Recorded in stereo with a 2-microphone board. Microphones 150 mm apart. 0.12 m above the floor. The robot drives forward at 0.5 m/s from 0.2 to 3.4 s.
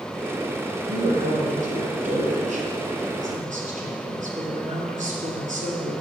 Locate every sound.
0.9 s a woman speaking: 50° right (ahead or behind), 2.5 m; by 5.9 s 60° right (ahead or behind), 2.5 m